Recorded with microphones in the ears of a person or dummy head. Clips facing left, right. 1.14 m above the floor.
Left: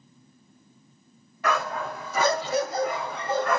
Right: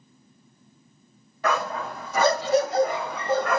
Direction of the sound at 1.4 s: 35° right (ahead or behind).